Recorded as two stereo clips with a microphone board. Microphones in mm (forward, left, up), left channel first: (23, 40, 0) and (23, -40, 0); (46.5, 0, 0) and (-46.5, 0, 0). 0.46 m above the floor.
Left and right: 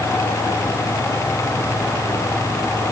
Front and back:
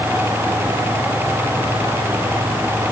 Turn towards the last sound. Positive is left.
No sound to turn to.